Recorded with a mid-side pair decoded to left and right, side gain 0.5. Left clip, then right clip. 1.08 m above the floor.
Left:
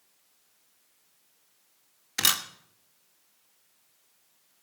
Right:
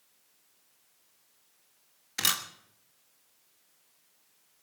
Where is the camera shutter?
25° left, 1.4 m.